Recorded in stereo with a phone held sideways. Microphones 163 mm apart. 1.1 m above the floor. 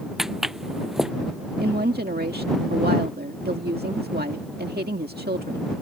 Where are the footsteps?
Centre (ahead or behind).